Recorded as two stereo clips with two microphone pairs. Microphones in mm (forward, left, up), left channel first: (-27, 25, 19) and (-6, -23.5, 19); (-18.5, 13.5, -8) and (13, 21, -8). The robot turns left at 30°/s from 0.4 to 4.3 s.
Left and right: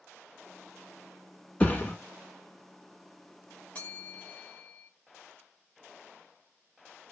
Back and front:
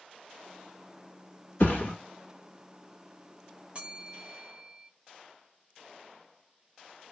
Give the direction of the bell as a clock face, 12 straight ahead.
10 o'clock.